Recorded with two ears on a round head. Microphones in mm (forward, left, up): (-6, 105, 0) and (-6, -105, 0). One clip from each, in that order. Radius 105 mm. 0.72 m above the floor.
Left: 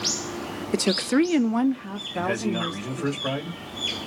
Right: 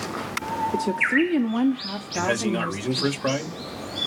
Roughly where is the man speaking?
Right.